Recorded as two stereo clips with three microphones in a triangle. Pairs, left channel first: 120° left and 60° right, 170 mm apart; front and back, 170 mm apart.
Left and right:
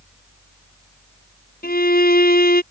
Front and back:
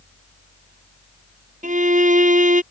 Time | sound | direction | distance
1.6 | a violin | 140° left | ?